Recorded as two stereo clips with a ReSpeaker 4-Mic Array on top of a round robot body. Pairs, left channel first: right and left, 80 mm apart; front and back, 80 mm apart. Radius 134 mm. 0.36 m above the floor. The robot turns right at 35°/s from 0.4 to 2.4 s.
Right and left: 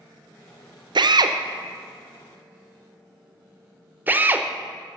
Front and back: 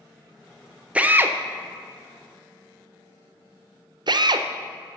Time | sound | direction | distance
0.9 | a drill | 105° left | 0.6 m